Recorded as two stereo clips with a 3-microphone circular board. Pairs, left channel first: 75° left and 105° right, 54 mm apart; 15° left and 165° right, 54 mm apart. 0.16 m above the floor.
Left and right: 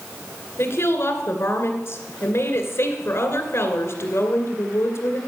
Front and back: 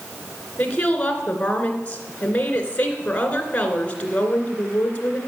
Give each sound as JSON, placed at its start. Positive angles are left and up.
{"t": 0.6, "sound": "a woman speaking", "azimuth_deg": 75, "distance_m": 2.0}